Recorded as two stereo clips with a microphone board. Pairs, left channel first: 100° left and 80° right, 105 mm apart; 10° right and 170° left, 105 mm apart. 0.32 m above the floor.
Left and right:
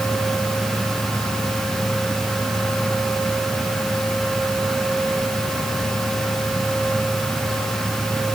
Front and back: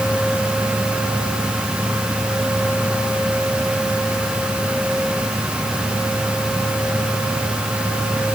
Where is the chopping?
No chopping in this recording.